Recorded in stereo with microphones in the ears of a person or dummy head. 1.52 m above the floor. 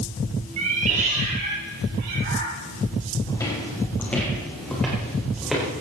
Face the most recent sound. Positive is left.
turn(degrees=0)  # may be behind; listen again after turning